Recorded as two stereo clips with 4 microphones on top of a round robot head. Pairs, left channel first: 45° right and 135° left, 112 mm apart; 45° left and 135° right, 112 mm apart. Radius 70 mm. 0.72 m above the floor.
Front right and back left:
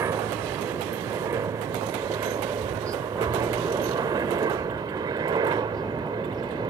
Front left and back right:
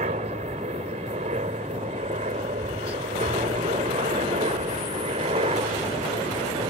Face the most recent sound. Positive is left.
turn(degrees=-175)